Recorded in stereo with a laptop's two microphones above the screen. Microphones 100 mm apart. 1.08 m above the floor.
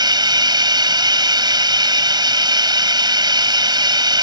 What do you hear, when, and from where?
0.0 s running water: 45° right (ahead or behind)